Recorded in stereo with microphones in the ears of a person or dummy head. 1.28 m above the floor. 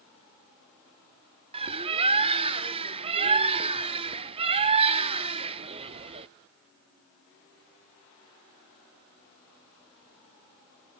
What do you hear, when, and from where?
1.5 s a bird: 30° right (ahead or behind), 0.7 m